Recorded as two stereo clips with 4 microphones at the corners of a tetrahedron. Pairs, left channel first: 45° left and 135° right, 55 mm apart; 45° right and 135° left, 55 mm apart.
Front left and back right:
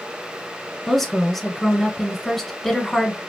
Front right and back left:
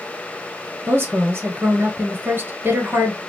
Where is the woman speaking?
130° left, 1.5 m.